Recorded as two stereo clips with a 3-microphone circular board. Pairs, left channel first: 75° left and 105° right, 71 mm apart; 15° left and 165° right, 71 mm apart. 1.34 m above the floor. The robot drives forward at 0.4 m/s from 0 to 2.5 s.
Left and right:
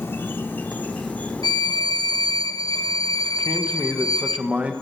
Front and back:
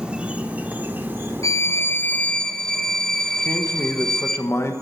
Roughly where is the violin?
Ahead left.